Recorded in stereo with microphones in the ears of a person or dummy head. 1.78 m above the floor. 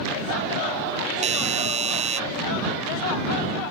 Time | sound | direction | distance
1.2 | a doorbell | 35° right (ahead or behind) | ?